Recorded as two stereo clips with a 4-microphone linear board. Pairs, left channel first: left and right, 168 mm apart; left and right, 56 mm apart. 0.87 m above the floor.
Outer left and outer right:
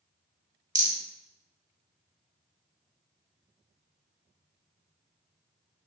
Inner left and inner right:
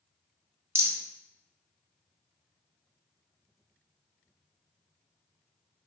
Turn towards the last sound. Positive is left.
turn(degrees=-45)  # may be behind; listen again after turning